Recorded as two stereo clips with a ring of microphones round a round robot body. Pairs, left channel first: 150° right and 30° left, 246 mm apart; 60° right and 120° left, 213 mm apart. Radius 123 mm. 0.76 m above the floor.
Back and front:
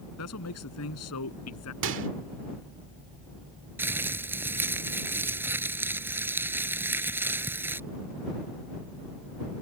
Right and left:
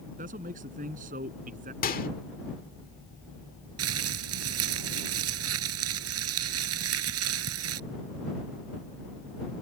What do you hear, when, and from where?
0.2 s a man speaking: straight behind
1.8 s a microwave: 10° right
3.8 s crumpling: 110° left